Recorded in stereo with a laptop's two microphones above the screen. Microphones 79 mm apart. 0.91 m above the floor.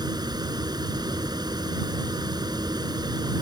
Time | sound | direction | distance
0.0 | a fan | 65° right (ahead or behind) | ?